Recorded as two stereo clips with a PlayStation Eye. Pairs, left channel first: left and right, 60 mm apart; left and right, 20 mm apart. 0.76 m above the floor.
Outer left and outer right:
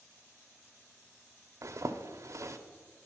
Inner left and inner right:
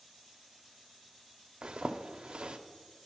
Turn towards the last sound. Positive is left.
turn(degrees=-55)  # may be behind; listen again after turning